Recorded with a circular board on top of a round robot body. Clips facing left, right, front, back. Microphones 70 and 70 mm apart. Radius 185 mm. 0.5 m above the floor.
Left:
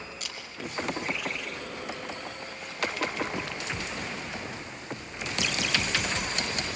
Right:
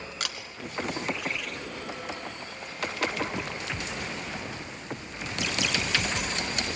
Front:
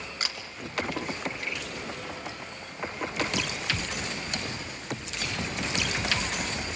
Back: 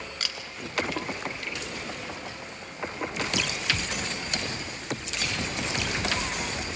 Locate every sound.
0.2 s a camera shutter: 65° right, 1.9 m